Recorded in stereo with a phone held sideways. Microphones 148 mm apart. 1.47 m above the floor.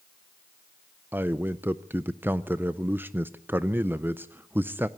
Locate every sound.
1.1 s a man speaking: 15° right (ahead or behind), 0.5 m